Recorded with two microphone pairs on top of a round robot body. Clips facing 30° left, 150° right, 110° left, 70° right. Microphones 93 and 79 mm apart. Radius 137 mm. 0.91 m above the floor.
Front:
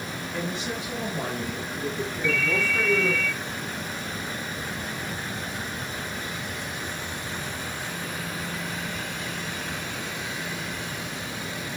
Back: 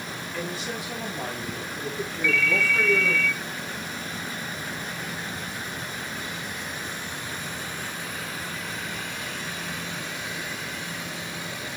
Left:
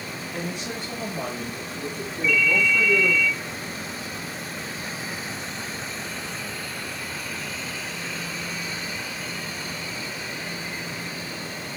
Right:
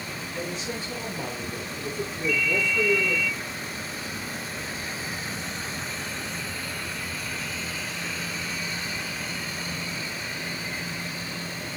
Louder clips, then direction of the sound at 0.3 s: Front 1 dB, left 1 dB; 95° left.